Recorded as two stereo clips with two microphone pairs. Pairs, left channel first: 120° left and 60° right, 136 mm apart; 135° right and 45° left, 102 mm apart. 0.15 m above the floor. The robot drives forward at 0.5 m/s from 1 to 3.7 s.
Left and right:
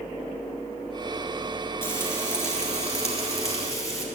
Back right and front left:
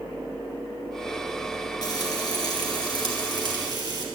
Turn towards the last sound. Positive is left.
turn(degrees=-175)